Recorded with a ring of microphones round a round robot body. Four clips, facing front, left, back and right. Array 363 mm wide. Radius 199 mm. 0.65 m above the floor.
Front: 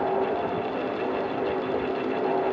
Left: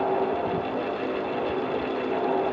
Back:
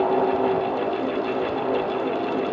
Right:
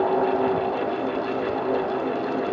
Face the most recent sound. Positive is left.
No sound to turn to.